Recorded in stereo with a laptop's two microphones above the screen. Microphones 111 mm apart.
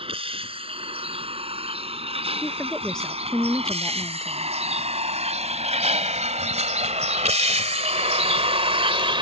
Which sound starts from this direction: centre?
A woman speaking, at 2.4 s.